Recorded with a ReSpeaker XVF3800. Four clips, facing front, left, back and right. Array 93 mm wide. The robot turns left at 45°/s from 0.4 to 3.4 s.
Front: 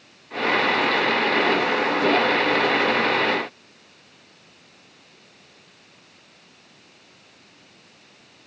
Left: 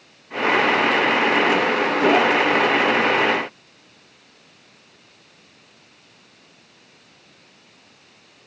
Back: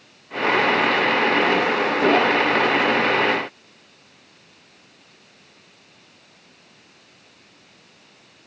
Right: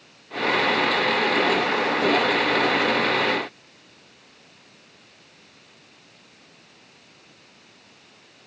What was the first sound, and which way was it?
Only background noise.